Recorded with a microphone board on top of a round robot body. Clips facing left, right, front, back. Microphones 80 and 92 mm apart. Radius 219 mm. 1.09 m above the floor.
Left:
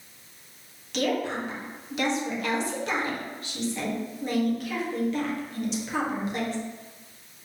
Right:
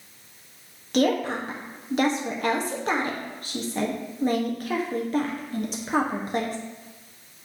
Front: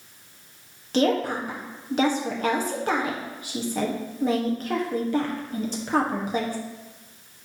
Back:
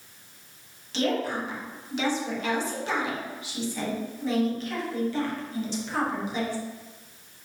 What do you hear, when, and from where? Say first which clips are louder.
0.9 s a woman speaking: right 4 dB, front 5 dB; 40° right, 1.5 m